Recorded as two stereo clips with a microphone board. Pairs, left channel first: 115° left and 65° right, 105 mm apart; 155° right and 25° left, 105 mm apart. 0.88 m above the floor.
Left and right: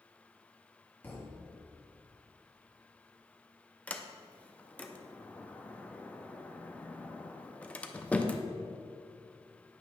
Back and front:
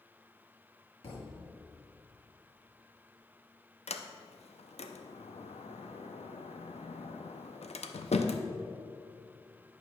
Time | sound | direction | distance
1.0 | a thud | 175° right | 1.6 m
3.9 | a sliding door | 170° right | 0.5 m